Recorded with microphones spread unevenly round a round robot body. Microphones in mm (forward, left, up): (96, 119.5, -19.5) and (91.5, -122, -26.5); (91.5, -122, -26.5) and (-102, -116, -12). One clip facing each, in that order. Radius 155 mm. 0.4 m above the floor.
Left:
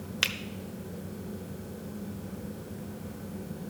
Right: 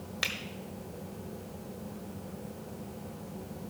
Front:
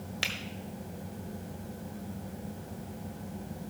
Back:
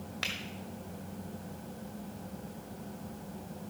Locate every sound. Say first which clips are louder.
0.2 s a finger snap: left 2 dB, front 2 dB; 50° left, 0.8 m